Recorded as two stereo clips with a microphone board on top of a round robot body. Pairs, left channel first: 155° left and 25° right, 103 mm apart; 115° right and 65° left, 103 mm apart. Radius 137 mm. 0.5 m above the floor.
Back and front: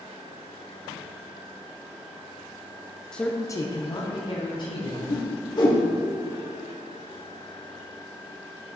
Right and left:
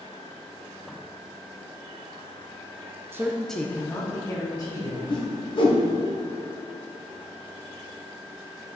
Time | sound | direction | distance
3.1 | a man speaking | 85° left | 0.8 m
5.1 | a whoosh | 155° right | 1.3 m